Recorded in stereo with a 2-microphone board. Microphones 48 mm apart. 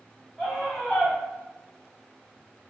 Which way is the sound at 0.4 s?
5° left (ahead or behind).